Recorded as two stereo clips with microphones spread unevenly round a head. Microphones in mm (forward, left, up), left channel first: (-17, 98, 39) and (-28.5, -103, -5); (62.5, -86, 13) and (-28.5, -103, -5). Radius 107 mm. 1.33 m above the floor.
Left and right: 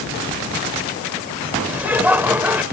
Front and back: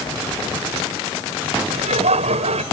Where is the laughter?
Straight behind.